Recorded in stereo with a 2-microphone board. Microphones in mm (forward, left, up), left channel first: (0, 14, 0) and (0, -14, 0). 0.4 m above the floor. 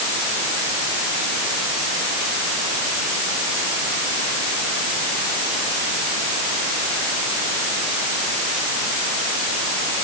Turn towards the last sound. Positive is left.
No sound to turn to.